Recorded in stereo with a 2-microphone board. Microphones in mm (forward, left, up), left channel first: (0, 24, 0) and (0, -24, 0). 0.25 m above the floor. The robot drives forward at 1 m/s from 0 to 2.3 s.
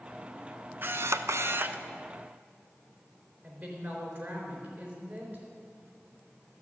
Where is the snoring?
I don't hear snoring.